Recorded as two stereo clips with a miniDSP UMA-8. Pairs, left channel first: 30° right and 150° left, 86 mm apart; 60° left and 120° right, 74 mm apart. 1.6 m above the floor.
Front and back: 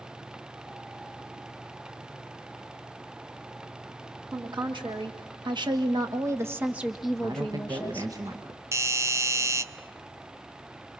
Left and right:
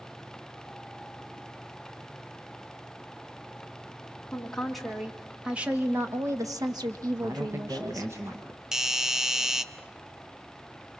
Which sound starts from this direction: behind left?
A woman speaking, at 4.3 s.